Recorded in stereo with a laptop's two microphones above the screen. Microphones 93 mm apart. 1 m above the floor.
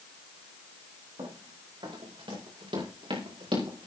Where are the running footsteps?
75° right (ahead or behind), 7 m; by 3.9 s 80° right, 5 m.